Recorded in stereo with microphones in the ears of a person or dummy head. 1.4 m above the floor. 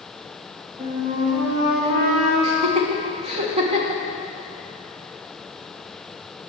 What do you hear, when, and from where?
0.8 s a flute: 45° right (ahead or behind), 3 m
2.4 s laughter: 30° right (ahead or behind), 1.4 m